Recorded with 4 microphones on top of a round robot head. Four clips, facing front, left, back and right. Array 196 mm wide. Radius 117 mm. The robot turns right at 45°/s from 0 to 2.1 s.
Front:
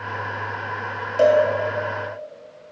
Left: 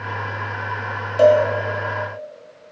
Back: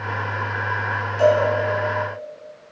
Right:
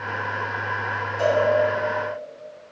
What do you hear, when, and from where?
1.2 s a cowbell: 50° left, 1.6 m; by 1.4 s 60° left, 1.6 m